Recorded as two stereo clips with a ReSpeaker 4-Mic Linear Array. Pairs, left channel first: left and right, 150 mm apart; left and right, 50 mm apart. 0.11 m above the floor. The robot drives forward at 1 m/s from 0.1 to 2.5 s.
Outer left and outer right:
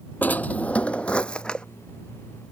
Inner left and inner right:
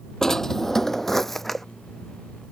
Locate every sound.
0.2 s a drawer: 10° left (ahead or behind); by 1.6 s 5° left (ahead or behind)